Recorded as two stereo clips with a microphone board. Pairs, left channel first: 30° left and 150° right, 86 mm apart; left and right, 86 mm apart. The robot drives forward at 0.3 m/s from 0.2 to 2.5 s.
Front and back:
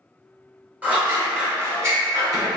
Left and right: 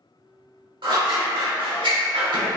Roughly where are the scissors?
Right.